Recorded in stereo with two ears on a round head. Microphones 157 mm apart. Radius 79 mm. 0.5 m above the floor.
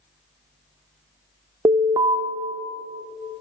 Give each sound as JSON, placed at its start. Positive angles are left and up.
{"t": 1.6, "sound": "an alarm", "side_deg": -20, "distance_m": 0.8}